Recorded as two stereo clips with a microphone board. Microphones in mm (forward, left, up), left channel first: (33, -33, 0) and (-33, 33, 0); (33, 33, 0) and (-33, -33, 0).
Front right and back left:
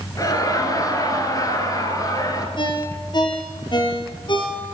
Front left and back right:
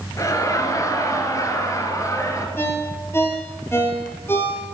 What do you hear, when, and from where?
0.2 s laughter: 5° right, 1.8 m
2.6 s a ringtone: 20° right, 2.0 m